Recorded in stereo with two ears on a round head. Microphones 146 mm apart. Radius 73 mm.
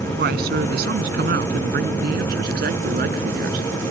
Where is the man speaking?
70° right (ahead or behind); by 3.7 s 65° right (ahead or behind).